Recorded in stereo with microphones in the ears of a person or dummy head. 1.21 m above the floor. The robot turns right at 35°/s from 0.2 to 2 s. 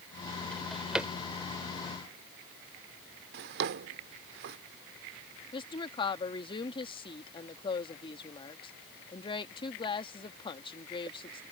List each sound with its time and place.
0.5 s a drawer: 5° left (ahead or behind); by 1.1 s 5° right (ahead or behind)
3.3 s a drawer: 60° right (ahead or behind)
5.5 s a woman speaking: 30° left (ahead or behind)